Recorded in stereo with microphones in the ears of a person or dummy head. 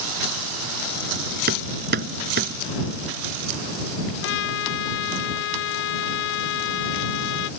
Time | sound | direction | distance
1.5 | hammering | 55° right (ahead or behind) | ?
4.2 | a trumpet | 75° left (ahead or behind) | ?